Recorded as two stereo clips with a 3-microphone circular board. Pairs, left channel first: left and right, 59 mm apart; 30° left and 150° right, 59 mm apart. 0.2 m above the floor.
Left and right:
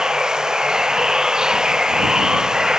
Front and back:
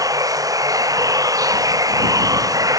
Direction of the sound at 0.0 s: 170° right.